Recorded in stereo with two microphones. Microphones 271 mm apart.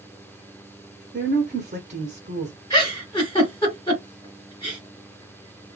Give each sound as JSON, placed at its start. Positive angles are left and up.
{"t": 1.1, "sound": "a woman speaking", "side_deg": -30, "distance_m": 1.3}
{"t": 2.7, "sound": "a giggle", "side_deg": 15, "distance_m": 2.0}